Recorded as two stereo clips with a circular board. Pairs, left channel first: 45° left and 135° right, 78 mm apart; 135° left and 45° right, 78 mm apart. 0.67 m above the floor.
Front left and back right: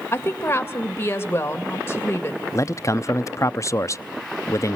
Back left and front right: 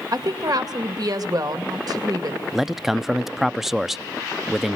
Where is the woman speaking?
15° right, 2 m.